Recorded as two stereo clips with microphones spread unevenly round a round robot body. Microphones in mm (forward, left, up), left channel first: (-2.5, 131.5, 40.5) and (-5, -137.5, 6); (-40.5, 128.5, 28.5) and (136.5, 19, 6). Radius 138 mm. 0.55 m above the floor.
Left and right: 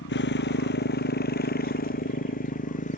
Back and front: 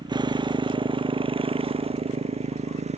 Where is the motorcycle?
35° left; by 3.0 s 25° left.